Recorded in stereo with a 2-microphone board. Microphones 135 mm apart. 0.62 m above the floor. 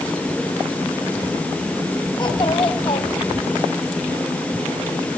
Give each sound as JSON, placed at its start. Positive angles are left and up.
{"t": 2.2, "sound": "a child speaking", "side_deg": 35, "distance_m": 3.0}